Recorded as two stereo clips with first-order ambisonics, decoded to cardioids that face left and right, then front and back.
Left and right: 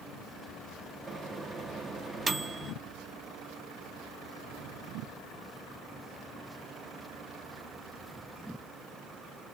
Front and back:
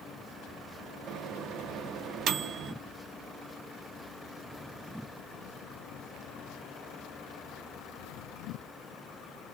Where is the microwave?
160° right, 0.5 m.